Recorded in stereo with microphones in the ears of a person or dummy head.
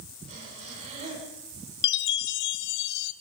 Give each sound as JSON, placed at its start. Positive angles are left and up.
{"t": 0.3, "sound": "breathing", "side_deg": -40, "distance_m": 7.5}
{"t": 1.8, "sound": "a chime", "side_deg": 65, "distance_m": 0.7}